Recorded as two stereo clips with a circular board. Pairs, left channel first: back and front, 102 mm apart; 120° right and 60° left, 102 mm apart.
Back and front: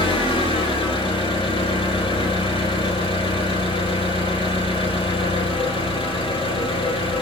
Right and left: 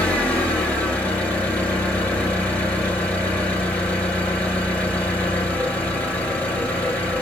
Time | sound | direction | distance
0.0 | an engine running | 160° left | 1.5 m